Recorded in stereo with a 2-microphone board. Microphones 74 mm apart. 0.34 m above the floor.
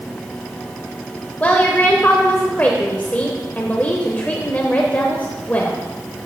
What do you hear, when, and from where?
1.4 s a woman speaking: 25° left (ahead or behind), 0.9 m